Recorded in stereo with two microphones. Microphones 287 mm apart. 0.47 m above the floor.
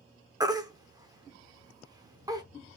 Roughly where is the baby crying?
Centre.